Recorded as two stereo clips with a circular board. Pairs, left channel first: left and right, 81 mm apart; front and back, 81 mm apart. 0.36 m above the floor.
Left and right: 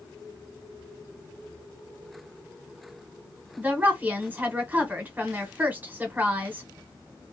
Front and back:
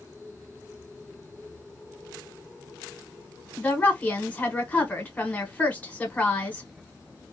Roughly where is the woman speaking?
Ahead right.